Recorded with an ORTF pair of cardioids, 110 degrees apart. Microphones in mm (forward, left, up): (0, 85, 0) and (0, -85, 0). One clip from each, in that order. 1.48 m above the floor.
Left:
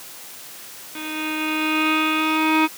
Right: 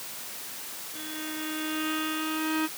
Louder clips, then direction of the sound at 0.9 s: Left 11 dB; 60° left.